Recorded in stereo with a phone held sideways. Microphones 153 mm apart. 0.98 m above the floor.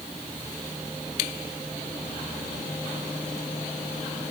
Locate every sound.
Only background noise.